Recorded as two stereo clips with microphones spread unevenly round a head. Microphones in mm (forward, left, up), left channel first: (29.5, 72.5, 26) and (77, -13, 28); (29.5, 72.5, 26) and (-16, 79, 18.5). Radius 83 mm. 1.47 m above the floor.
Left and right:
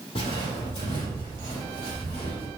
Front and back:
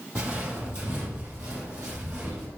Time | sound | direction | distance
0.1 | footsteps | 140° left | 2.5 m